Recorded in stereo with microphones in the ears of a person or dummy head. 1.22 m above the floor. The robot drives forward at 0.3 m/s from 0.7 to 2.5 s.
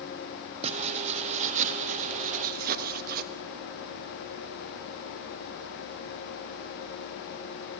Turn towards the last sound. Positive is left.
turn(degrees=-50)  # may be behind; listen again after turning